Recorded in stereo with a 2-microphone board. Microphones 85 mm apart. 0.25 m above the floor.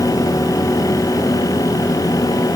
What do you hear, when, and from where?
Only background noise.